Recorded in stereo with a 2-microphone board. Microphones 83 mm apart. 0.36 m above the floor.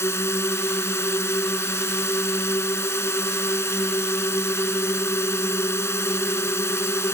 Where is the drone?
35° left (ahead or behind).